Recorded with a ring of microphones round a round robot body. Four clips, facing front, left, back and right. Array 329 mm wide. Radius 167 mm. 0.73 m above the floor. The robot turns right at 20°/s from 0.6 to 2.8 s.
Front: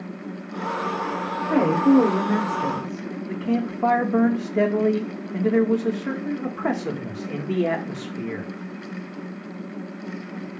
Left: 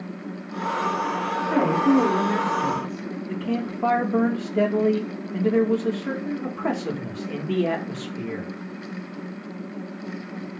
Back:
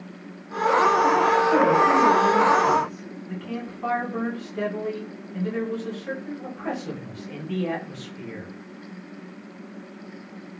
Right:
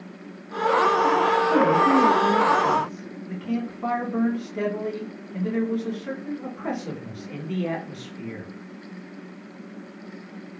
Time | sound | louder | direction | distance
1.5 | a woman speaking | left 2 dB, front 6 dB | 5° left | 3.5 m
3.3 | a man speaking | left 1 dB, front 9 dB | 30° left | 2.5 m